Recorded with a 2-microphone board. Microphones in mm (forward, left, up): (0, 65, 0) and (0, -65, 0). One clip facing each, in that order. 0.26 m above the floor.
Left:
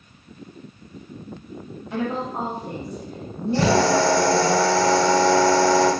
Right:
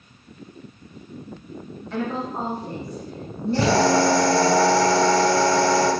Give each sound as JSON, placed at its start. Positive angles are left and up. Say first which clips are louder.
{"t": 1.9, "sound": "a woman speaking", "louder": "left 1 dB", "side_deg": 15, "distance_m": 1.0}
{"t": 3.5, "sound": "a drill", "louder": "even", "side_deg": -5, "distance_m": 1.9}